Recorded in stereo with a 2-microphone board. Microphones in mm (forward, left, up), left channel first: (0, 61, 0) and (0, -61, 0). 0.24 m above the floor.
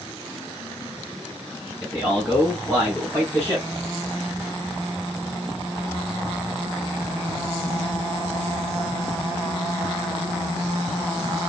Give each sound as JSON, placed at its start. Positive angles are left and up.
{"t": 1.8, "sound": "a man speaking", "side_deg": 5, "distance_m": 4.5}